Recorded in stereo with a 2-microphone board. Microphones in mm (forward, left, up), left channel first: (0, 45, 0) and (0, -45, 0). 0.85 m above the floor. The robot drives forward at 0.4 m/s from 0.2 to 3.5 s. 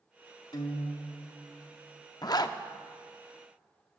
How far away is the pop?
I don't hear a pop.